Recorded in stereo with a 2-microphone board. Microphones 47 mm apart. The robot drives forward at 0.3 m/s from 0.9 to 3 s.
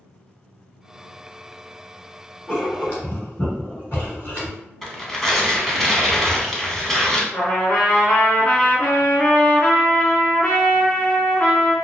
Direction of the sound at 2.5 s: 35° left (ahead or behind).